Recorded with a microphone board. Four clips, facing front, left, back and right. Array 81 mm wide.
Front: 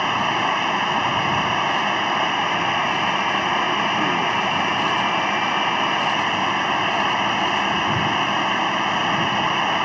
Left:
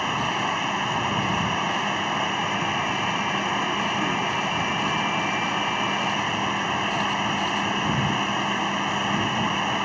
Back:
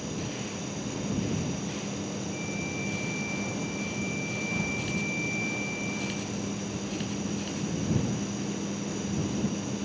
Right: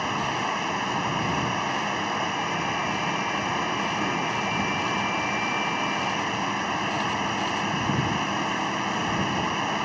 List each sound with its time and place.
0.0 s running water: 5° left